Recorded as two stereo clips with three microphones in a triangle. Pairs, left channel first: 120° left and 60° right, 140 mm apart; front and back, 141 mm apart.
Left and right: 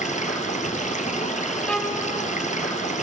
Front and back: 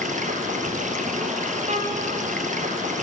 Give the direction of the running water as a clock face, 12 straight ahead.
7 o'clock.